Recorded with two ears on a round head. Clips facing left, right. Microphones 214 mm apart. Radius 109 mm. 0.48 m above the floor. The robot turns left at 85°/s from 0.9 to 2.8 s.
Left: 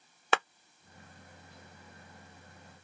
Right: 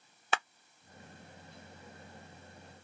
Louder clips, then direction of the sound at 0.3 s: Left 5 dB; 50° left (ahead or behind).